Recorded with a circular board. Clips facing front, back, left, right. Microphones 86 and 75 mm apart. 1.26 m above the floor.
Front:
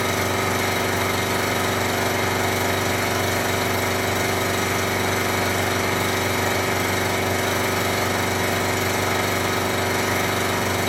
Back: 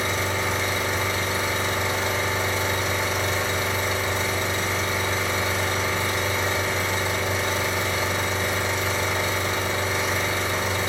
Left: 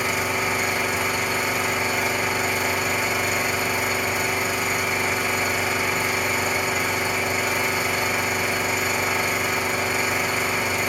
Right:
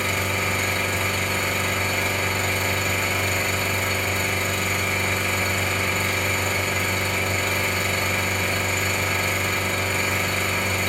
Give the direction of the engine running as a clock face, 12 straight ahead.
12 o'clock.